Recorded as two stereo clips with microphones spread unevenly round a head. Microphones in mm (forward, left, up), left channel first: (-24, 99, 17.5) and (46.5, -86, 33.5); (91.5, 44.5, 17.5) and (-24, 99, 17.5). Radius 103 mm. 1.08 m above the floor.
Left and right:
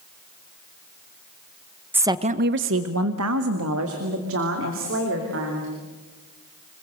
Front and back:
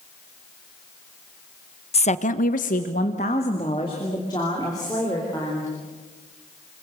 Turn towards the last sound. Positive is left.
turn(degrees=-100)